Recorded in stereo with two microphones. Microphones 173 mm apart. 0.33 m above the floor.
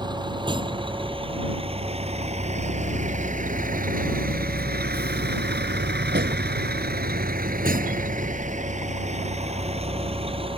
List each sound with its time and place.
0.0 s a vehicle: 25° right (ahead or behind); by 10.6 s 30° right (ahead or behind)